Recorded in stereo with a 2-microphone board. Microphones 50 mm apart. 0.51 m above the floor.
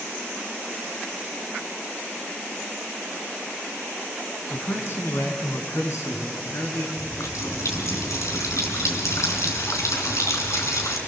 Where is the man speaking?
55° left (ahead or behind), 4.5 m; by 6.9 s 80° left, 5 m.